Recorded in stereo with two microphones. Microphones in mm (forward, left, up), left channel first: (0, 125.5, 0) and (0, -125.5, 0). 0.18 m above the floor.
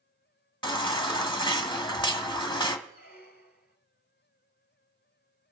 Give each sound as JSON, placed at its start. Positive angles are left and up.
{"t": 0.6, "sound": "a baby crying", "side_deg": 20, "distance_m": 1.0}
{"t": 2.9, "sound": "a squeak", "side_deg": 40, "distance_m": 0.7}